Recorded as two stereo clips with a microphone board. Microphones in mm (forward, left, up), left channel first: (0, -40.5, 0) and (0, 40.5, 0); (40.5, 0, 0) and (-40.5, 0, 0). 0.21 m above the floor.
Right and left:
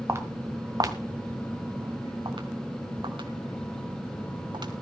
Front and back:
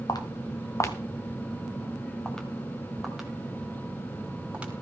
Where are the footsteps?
35° left, 1.6 m; by 4.7 s 105° left, 3.5 m.